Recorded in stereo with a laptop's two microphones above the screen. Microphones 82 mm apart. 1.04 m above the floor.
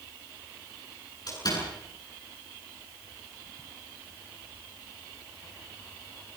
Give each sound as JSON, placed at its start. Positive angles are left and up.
{"t": 1.3, "sound": "a door slam", "side_deg": 50, "distance_m": 8.0}